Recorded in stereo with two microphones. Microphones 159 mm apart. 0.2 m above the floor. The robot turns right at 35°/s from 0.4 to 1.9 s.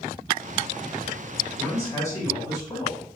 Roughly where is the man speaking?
Centre.